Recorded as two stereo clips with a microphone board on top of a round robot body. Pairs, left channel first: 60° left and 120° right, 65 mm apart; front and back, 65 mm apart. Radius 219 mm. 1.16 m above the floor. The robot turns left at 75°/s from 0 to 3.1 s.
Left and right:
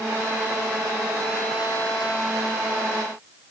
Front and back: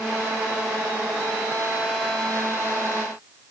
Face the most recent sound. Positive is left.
No sound to turn to.